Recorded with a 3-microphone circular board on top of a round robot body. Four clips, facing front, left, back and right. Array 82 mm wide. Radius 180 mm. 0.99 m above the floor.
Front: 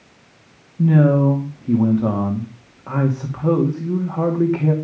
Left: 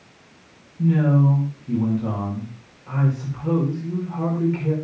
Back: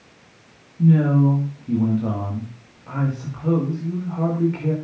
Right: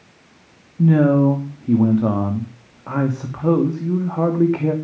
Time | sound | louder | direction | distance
0.8 | a man speaking | right 5 dB, front 2 dB | 60° right | 2.5 m